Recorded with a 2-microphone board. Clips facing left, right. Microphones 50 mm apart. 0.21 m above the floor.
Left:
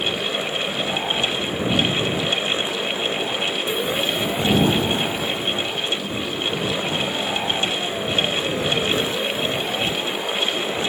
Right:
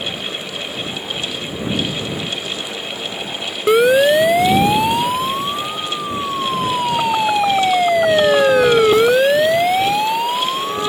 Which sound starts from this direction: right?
A siren, at 3.7 s.